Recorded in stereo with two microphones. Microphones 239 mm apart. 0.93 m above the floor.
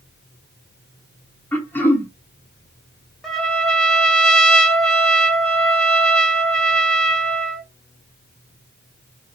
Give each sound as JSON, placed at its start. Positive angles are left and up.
{"t": 1.5, "sound": "throat clearing", "side_deg": 10, "distance_m": 0.8}
{"t": 3.2, "sound": "a trumpet", "side_deg": 5, "distance_m": 0.8}